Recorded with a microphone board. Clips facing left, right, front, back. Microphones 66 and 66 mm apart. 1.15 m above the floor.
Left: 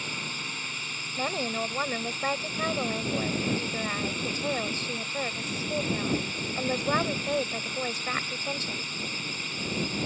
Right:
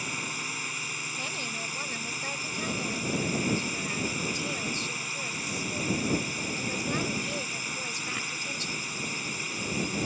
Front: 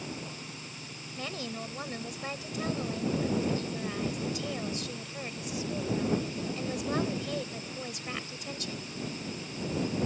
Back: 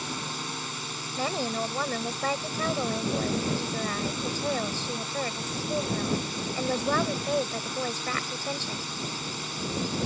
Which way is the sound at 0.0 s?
170° right.